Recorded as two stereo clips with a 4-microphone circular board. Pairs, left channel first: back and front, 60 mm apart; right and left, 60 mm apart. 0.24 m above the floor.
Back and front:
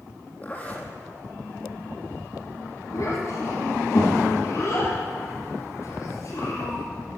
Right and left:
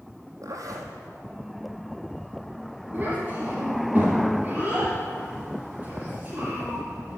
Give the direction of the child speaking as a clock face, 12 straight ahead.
7 o'clock.